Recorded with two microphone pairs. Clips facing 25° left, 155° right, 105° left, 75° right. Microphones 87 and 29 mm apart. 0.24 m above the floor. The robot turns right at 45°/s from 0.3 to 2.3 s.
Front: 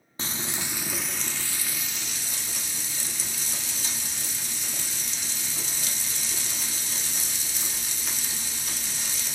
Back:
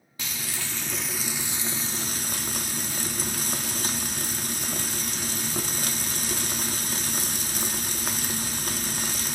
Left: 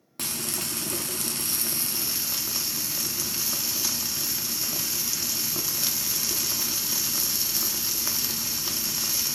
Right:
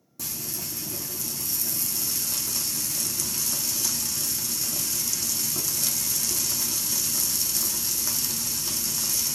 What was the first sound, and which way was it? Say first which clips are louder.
Frying: front 2 dB, left 4 dB; 80° left.